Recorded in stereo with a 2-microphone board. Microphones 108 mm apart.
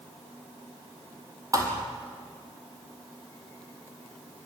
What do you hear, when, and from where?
1.5 s a thud: 30° right (ahead or behind), 3 m